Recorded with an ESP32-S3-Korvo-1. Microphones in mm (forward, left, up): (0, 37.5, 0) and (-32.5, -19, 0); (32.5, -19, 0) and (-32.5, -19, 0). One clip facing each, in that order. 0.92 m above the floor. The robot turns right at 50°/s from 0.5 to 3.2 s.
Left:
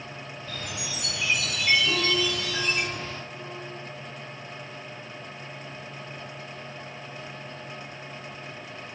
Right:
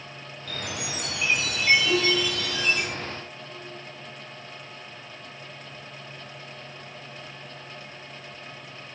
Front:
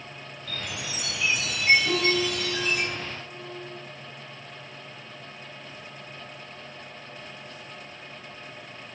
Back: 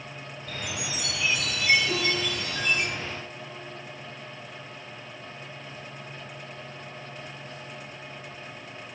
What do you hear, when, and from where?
0.5 s a chime: 110° right, 7 m; by 2.9 s 10° left, 7 m
1.9 s a piano: 50° right, 5 m; by 3.6 s 20° left, 5 m